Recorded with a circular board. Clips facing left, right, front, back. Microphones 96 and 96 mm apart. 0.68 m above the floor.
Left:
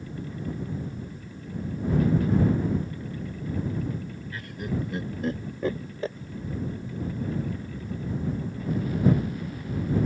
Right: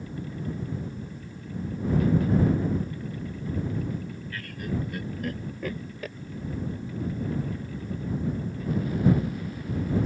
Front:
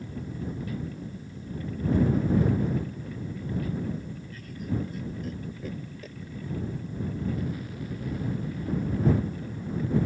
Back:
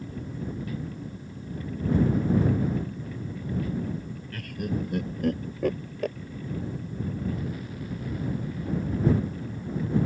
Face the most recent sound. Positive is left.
turn(degrees=150)